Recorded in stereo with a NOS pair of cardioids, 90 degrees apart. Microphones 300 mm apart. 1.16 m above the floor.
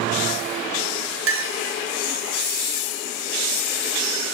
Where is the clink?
45° right, 0.9 m.